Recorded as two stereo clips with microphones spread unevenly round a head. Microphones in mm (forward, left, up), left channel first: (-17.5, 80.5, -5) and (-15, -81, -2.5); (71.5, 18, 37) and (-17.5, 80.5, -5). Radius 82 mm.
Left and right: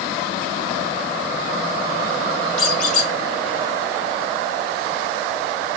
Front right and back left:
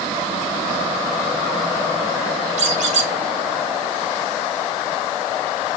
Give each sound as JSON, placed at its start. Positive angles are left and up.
{"t": 2.6, "sound": "a squeak", "azimuth_deg": 135, "distance_m": 2.5}